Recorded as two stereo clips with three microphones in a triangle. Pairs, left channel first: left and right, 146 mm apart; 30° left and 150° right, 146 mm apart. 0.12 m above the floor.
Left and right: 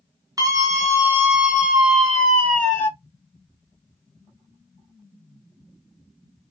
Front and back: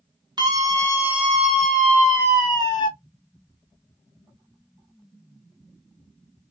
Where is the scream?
130° right, 1.4 m; by 2.9 s 25° left, 1.4 m.